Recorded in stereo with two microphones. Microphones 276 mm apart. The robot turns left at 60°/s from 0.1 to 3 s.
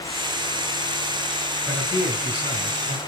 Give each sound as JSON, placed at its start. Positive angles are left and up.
{"t": 1.6, "sound": "a man speaking", "azimuth_deg": -175, "distance_m": 4.5}